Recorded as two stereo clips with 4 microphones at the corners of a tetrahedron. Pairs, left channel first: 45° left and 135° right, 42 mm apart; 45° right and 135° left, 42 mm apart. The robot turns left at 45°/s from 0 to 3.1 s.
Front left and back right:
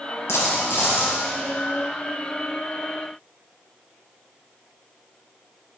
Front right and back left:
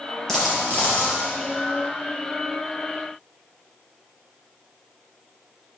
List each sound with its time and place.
0.3 s a dropped coin: 35° left, 4.5 m; by 1.2 s 5° right, 4.5 m